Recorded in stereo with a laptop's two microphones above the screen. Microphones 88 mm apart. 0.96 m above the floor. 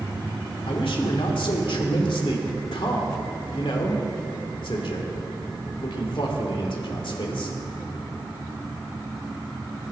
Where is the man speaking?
80° left, 2.5 m.